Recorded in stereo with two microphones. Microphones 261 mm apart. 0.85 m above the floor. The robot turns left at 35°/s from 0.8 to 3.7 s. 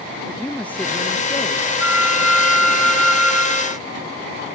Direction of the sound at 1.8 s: 120° left.